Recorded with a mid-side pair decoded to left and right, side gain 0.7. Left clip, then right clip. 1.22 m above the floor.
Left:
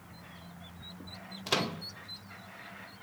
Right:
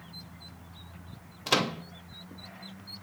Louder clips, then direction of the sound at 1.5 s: Right 4 dB; 20° right.